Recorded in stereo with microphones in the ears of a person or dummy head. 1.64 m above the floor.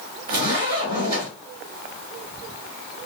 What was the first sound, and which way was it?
A zipper, 35° right (ahead or behind).